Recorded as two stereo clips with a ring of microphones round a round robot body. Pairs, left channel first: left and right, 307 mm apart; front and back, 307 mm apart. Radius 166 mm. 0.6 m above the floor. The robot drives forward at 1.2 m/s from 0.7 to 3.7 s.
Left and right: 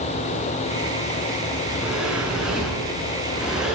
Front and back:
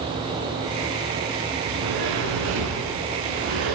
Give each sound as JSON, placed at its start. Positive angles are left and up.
{"t": 1.7, "sound": "a sliding door", "azimuth_deg": -175, "distance_m": 7.5}